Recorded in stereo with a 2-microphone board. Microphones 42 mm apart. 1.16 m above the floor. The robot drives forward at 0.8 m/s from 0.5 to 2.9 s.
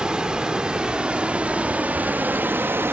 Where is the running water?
25° right (ahead or behind), 2.5 m; by 2.9 s 75° right (ahead or behind), 0.9 m.